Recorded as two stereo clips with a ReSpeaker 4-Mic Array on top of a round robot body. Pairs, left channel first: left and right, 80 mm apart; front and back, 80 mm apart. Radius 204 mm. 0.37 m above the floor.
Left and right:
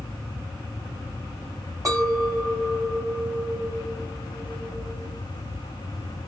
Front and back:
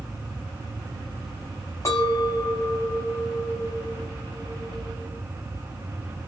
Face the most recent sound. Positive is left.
turn(degrees=-50)